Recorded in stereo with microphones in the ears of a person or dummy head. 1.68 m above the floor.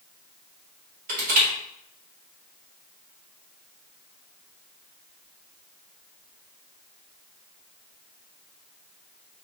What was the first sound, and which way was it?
Crushing, 45° right (ahead or behind).